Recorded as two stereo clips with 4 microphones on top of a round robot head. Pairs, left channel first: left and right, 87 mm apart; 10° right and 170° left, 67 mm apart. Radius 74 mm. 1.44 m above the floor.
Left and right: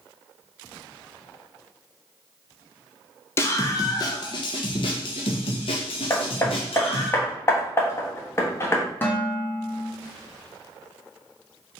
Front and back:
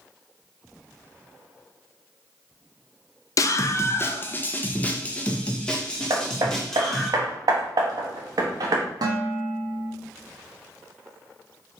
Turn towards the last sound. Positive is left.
turn(degrees=155)